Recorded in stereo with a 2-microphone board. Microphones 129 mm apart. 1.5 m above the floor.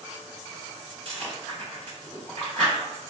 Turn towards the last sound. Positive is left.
turn(degrees=-45)  # may be behind; listen again after turning